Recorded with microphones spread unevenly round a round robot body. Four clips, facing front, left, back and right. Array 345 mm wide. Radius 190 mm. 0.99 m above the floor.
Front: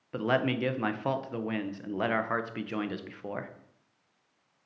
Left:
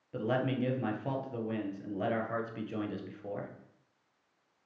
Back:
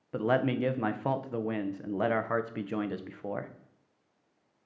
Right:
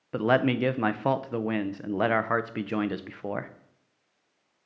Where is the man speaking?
75° right, 0.6 m.